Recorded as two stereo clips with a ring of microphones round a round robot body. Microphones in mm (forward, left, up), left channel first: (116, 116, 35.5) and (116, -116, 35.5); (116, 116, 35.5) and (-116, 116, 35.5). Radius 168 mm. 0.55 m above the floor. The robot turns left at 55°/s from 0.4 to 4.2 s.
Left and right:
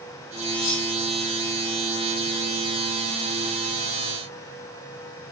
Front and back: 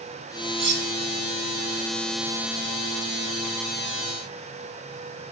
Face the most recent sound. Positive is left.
turn(degrees=-55)